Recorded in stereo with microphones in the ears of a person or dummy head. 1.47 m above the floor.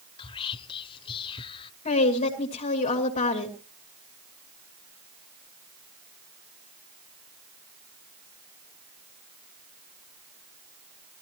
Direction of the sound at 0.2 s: 25° left (ahead or behind).